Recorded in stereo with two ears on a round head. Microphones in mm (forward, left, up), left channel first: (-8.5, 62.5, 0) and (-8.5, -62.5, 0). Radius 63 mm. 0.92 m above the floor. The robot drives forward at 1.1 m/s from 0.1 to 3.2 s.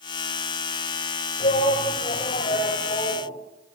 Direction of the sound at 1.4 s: 55° left (ahead or behind).